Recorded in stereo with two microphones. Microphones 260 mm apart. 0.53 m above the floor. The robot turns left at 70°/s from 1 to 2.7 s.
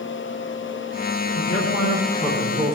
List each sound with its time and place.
1.4 s a man speaking: 70° left, 5 m; by 2.8 s 25° right, 5 m